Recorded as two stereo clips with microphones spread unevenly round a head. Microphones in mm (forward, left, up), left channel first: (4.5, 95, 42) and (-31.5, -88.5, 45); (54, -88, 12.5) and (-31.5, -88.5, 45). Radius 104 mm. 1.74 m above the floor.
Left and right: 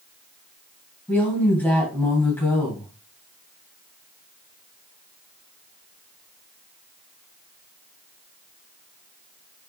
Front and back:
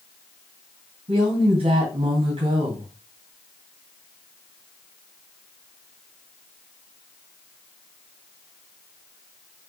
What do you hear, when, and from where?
1.1 s a woman speaking: 165° left, 2 m